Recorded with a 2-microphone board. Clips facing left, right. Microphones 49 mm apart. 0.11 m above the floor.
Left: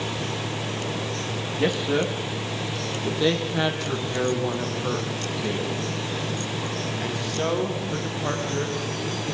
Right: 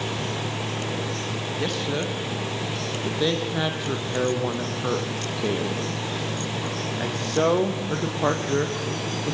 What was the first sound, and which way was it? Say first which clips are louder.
A man speaking: left 5 dB; 15° left (ahead or behind).